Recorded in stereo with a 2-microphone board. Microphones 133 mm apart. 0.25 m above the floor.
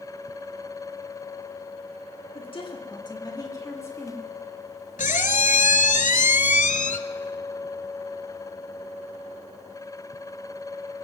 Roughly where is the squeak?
Left.